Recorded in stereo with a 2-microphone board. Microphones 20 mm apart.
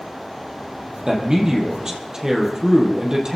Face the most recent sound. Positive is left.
turn(degrees=-30)  # may be behind; listen again after turning